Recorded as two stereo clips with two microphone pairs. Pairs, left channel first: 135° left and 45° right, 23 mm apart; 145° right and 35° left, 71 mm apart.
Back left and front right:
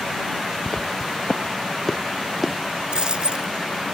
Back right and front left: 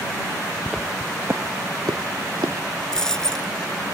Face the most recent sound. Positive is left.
turn(degrees=-65)